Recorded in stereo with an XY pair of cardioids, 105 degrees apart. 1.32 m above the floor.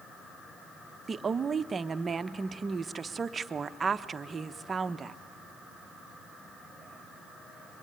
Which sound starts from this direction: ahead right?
A woman speaking, at 1.1 s.